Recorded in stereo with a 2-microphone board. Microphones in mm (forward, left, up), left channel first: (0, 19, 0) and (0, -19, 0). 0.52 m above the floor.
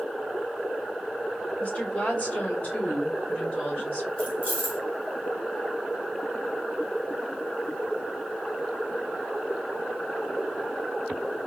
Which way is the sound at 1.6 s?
40° left (ahead or behind).